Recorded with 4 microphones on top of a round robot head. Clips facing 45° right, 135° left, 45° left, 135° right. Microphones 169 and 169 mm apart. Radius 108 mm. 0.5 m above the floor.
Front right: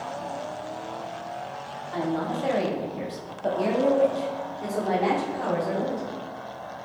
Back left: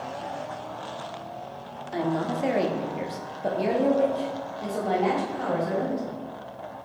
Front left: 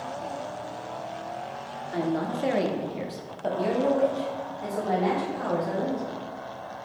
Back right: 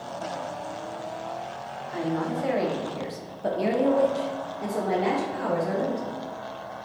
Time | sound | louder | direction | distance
1.9 | a woman speaking | back left 1 dB, even | 70° left | 1.0 m